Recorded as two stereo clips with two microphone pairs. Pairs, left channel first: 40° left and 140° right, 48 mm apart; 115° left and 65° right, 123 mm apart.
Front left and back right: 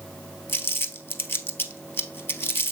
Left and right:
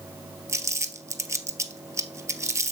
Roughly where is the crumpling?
Ahead.